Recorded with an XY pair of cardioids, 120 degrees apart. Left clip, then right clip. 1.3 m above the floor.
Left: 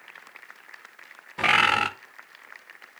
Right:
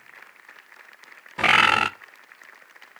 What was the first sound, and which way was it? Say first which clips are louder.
A bird: right 3 dB; 20° right.